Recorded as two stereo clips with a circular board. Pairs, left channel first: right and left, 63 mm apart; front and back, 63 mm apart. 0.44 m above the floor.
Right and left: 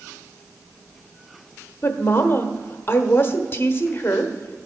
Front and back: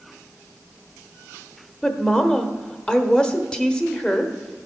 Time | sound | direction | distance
1.8 | a woman speaking | 65° right | 1.0 m